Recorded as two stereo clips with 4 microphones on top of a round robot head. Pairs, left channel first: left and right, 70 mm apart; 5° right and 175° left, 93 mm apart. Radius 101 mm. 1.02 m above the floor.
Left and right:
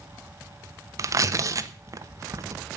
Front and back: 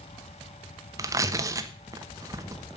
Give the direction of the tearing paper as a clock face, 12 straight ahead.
4 o'clock.